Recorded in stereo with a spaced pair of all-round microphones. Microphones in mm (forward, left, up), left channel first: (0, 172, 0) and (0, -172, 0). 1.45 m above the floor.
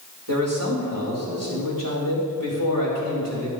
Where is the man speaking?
70° right (ahead or behind), 4.5 m.